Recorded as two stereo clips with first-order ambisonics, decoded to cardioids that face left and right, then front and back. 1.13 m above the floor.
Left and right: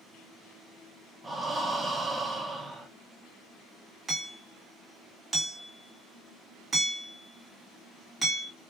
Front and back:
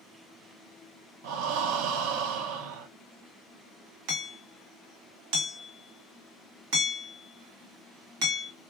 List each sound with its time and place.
1.2 s breathing: 175° right, 0.6 m
4.1 s hammering: 175° right, 1.8 m